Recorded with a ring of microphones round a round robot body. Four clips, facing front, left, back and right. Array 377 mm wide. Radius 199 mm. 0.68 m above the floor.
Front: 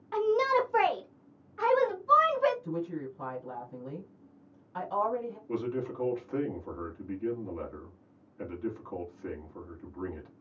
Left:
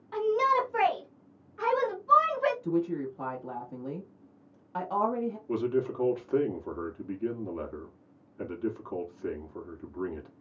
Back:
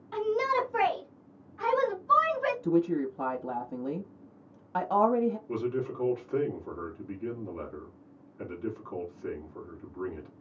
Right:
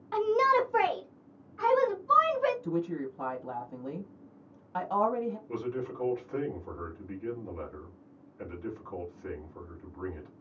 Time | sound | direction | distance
0.1 | a shout | 70° right | 1.0 m
2.6 | a woman speaking | straight behind | 1.0 m
5.5 | a man speaking | 90° left | 1.6 m